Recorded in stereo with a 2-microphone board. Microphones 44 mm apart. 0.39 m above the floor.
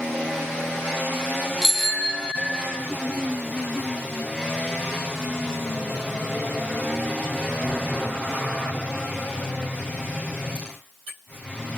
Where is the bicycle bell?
Centre (ahead or behind), 4.5 m; by 2.7 s 15° left (ahead or behind), 4.5 m.